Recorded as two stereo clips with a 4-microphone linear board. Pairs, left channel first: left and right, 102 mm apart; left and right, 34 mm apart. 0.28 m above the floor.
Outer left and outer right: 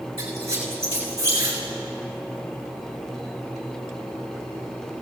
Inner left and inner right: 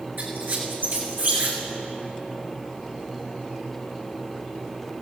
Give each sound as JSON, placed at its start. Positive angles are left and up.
{"t": 0.2, "sound": "a squeak", "side_deg": -85, "distance_m": 3.5}